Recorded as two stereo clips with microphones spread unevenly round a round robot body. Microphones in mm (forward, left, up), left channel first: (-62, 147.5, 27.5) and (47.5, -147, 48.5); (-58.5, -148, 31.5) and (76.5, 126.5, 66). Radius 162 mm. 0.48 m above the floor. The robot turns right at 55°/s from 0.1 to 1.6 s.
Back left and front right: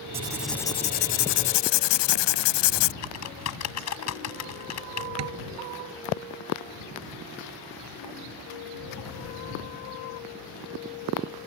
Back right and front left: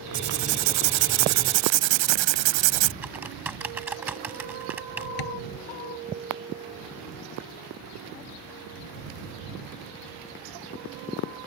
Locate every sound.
0.1 s writing: straight ahead; by 2.9 s 80° left
3.0 s typing on a keyboard: 150° left
5.2 s tapping: 110° right